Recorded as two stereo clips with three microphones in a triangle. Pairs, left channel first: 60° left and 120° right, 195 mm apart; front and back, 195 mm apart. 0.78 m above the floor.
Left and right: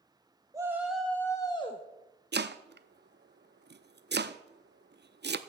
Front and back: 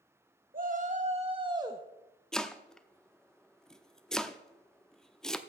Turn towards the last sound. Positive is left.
turn(degrees=-85)